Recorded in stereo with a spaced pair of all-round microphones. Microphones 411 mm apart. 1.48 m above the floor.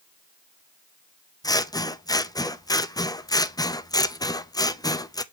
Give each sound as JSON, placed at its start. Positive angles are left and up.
{"t": 1.4, "sound": "scissors", "side_deg": 10, "distance_m": 0.5}